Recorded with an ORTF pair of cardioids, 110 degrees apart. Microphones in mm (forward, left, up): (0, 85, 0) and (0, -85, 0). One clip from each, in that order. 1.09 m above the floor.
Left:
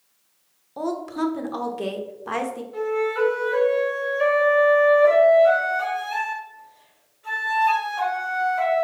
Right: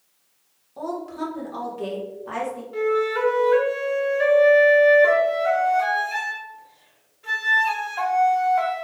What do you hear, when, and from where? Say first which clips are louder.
0.8 s a woman speaking: left 3 dB; 35° left, 0.7 m
2.7 s a flute: right 2 dB; 25° right, 1.2 m